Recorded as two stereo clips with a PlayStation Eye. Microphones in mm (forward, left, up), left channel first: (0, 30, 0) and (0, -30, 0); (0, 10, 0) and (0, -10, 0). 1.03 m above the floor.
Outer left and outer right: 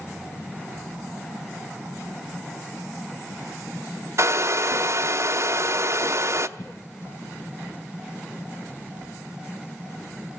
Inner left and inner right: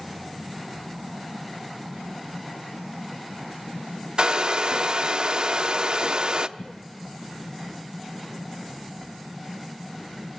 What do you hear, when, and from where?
4.2 s a hair dryer: 50° right (ahead or behind), 0.7 m
6.6 s a cough: 40° left (ahead or behind), 0.8 m